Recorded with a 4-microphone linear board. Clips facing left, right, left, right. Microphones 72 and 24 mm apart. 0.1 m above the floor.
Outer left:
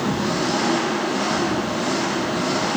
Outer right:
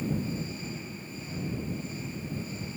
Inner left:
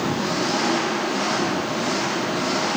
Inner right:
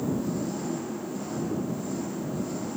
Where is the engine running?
85° left.